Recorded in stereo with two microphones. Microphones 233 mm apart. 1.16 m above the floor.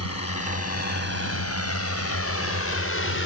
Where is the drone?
85° left; by 3.2 s 60° left (ahead or behind).